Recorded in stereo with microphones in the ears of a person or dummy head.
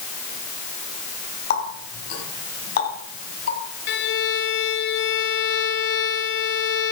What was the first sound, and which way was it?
A running tap, 55° left (ahead or behind).